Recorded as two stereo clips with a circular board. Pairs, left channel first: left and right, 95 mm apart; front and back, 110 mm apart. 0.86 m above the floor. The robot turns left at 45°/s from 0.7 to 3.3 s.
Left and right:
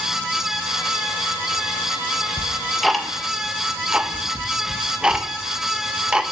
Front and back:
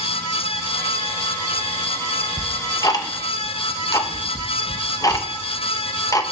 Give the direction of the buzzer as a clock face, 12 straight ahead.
I don't hear a buzzer.